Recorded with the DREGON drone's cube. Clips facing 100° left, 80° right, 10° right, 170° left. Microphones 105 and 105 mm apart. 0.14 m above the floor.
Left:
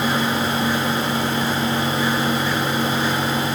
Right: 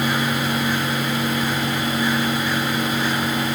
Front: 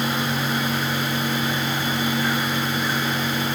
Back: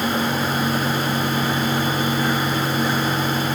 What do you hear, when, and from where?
Only background noise.